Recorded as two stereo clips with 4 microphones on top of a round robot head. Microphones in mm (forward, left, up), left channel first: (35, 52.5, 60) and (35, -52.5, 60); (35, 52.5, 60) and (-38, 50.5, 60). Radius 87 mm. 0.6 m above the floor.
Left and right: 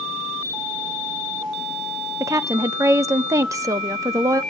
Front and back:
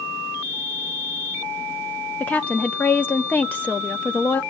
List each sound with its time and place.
2.2 s a woman speaking: 50° right, 0.8 m